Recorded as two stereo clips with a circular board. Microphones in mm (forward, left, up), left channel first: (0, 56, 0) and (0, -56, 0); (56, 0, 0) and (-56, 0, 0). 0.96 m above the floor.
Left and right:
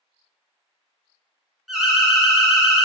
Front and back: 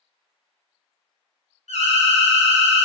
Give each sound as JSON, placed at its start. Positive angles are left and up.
{"t": 1.7, "sound": "an alarm", "azimuth_deg": 0, "distance_m": 0.5}